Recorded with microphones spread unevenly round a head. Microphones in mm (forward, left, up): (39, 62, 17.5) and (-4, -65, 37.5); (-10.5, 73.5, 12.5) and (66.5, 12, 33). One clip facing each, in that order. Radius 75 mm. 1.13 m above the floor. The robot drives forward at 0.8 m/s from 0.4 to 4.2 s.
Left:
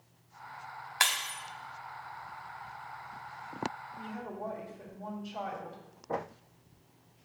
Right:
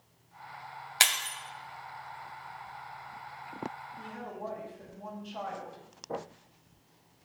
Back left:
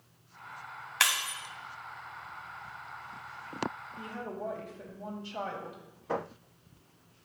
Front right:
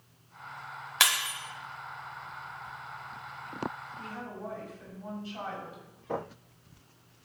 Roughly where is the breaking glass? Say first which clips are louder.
Even, front right 1 dB; right.